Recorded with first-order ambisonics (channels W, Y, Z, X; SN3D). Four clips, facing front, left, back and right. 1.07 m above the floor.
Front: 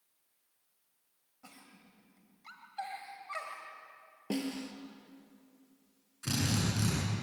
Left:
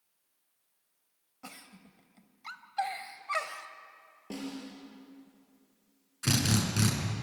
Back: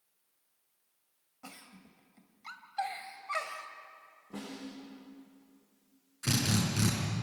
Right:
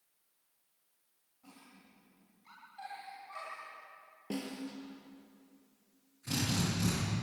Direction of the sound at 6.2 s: 100° left.